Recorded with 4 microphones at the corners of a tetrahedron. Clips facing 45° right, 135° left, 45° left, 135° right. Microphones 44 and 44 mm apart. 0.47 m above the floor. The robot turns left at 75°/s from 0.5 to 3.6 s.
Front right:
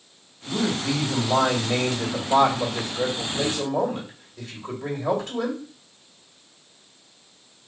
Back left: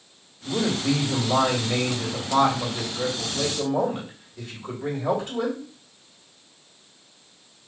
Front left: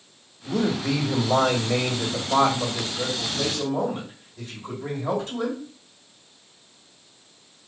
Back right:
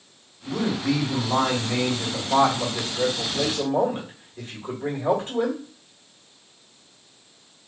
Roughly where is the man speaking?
Left.